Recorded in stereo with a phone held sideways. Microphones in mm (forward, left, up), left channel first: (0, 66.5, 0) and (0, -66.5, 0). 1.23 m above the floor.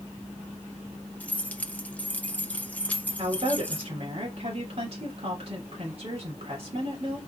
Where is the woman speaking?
50° right (ahead or behind), 3.5 m.